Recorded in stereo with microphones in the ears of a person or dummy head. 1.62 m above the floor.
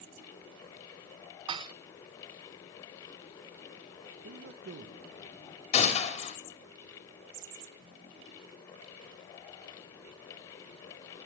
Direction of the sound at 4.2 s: 65° right (ahead or behind).